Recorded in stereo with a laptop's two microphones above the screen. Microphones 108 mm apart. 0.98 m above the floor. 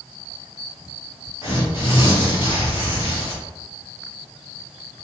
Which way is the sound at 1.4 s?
50° left (ahead or behind).